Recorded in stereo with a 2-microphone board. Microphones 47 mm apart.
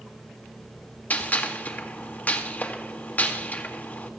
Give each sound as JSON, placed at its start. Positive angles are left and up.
{"t": 1.1, "sound": "a gunshot", "side_deg": 40, "distance_m": 1.8}